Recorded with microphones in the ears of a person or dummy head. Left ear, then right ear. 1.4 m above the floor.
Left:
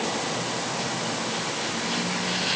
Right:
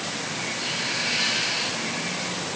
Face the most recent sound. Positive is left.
No sound to turn to.